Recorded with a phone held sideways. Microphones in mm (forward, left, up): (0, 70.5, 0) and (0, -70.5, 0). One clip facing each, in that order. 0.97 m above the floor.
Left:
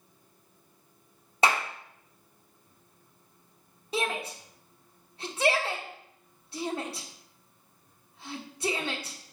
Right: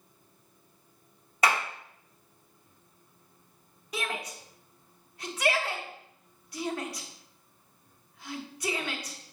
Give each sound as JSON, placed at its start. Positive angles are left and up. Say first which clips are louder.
{"t": 1.4, "sound": "a clap", "louder": "left 1 dB", "side_deg": 25, "distance_m": 1.4}
{"t": 3.9, "sound": "a shout", "louder": "left 4 dB", "side_deg": 30, "distance_m": 1.1}